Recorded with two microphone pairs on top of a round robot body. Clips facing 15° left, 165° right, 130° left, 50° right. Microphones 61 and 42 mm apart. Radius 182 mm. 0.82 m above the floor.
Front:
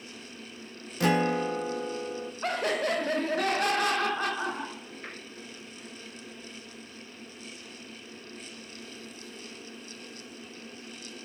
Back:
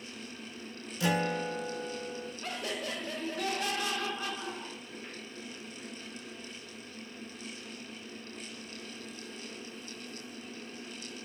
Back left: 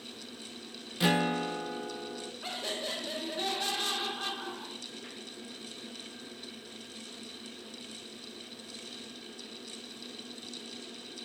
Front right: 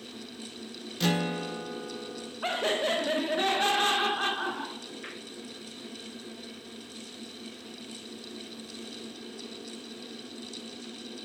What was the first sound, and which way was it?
A guitar, 50° left.